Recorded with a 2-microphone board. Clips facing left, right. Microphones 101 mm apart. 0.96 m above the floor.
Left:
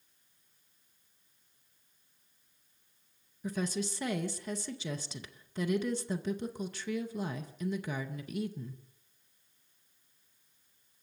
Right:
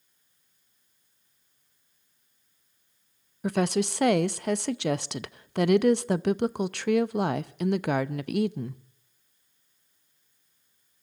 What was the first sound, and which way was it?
A woman speaking, 75° right (ahead or behind).